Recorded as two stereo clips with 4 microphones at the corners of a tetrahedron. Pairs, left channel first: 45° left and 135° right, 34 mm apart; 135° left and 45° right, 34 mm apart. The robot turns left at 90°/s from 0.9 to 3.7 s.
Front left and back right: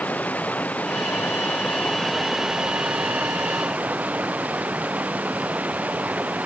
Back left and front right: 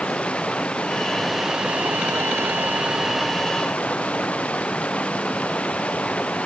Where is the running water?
80° left; by 6.5 s 175° right.